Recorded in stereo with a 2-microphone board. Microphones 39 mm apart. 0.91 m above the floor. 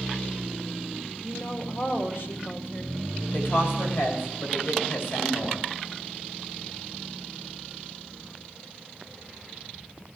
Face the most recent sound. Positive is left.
turn(degrees=80)